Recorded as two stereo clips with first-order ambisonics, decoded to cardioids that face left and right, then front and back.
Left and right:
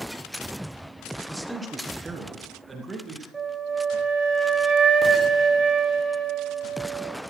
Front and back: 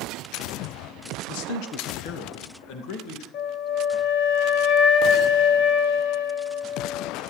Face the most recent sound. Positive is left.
turn(degrees=-15)